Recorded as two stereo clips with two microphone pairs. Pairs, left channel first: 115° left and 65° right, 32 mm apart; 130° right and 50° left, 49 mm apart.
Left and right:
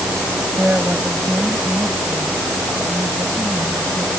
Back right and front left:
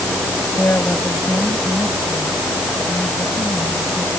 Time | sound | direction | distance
0.6 | a woman speaking | 95° right | ?